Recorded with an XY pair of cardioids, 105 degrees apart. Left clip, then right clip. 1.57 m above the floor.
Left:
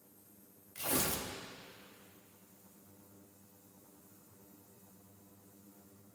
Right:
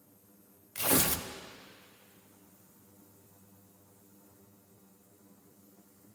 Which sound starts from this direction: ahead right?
Tearing paper, at 0.8 s.